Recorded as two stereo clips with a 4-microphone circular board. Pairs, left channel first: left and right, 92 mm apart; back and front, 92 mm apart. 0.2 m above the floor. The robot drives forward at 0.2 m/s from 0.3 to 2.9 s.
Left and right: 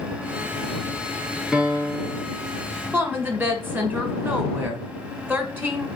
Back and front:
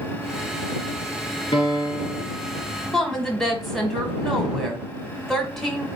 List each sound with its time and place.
1.5 s a piano: 175° right, 1.2 m
2.9 s a woman speaking: 95° right, 1.0 m